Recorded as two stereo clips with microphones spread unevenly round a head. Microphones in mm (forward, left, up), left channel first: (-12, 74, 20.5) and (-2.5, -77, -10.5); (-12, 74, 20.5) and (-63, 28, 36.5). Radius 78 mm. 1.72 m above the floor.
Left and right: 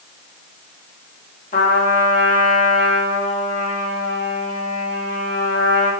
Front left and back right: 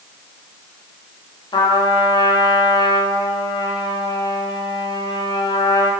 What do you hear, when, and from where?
1.5 s a trumpet: 60° left, 2.5 m